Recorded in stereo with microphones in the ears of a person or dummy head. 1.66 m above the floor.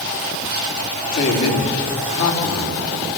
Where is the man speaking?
70° left (ahead or behind), 4 m.